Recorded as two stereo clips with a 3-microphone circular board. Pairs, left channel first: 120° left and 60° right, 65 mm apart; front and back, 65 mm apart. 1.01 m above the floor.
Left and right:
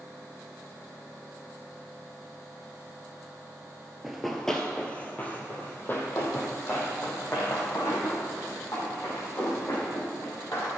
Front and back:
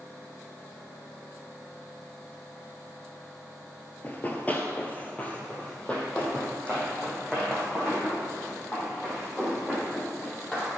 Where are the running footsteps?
20° left, 1.1 m; by 10.7 s 75° left, 5.5 m.